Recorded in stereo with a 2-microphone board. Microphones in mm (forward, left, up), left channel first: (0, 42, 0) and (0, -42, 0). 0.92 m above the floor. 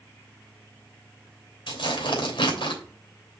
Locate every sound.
1.7 s tearing paper: 85° left, 3 m